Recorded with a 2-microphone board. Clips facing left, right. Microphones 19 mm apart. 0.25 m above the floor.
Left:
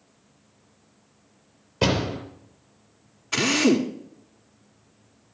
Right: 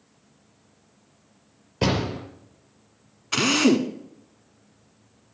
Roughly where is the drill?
Centre.